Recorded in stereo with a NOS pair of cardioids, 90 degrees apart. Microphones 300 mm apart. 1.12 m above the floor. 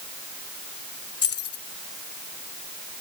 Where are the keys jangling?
50° left.